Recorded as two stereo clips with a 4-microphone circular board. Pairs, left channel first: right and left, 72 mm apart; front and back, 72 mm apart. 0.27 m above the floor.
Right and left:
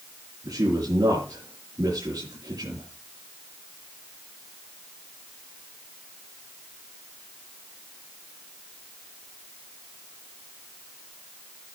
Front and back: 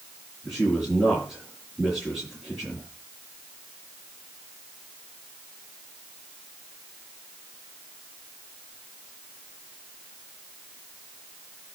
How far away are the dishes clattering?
No dishes clattering in this recording.